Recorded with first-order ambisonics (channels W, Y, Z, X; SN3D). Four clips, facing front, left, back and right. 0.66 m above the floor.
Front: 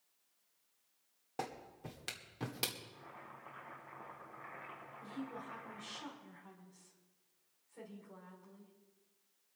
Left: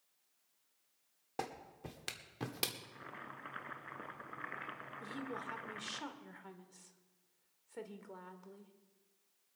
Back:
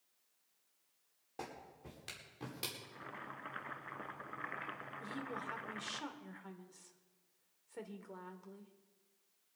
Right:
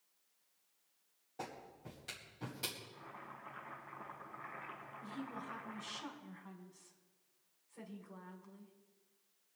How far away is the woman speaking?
About 1.8 m.